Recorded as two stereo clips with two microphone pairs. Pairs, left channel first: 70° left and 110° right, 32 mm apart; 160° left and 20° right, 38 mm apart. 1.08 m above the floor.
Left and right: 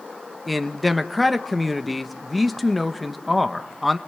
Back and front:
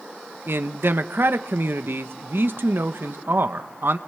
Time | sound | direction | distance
0.5 | a man speaking | 20° right | 1.1 m